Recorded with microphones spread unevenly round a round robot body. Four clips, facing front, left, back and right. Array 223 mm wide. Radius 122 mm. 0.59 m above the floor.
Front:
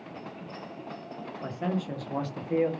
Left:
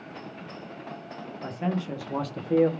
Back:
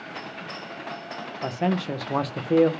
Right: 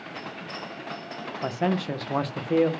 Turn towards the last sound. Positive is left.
turn(degrees=180)